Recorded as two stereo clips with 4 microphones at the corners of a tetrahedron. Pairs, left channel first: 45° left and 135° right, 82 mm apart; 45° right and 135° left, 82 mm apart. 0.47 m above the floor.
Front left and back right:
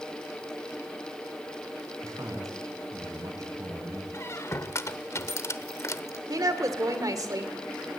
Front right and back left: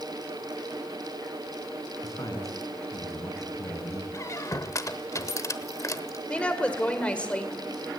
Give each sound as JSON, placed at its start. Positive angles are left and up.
{"t": 2.0, "sound": "a man speaking", "azimuth_deg": -90, "distance_m": 4.5}
{"t": 4.1, "sound": "a squeak", "azimuth_deg": -5, "distance_m": 1.0}
{"t": 6.3, "sound": "a woman speaking", "azimuth_deg": -115, "distance_m": 1.9}